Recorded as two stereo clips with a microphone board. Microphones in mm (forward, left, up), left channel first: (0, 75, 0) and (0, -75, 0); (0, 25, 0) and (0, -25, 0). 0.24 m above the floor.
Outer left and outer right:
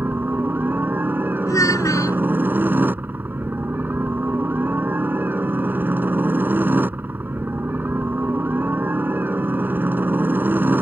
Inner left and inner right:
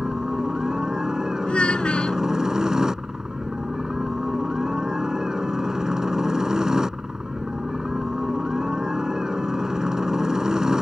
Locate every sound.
0.0 s a helicopter: 15° right (ahead or behind)
1.5 s a child speaking: 25° left (ahead or behind)